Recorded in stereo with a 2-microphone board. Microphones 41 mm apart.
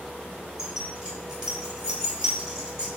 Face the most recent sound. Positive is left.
turn(degrees=-20)  # may be behind; listen again after turning